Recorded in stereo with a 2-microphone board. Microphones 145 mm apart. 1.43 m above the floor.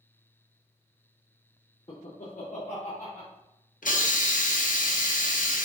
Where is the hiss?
75° left (ahead or behind), 0.6 m.